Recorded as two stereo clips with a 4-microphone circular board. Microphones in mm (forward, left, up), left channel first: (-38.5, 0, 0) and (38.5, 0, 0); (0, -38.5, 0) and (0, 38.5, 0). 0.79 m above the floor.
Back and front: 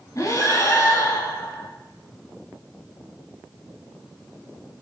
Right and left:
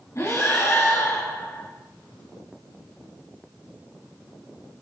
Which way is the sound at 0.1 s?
140° right.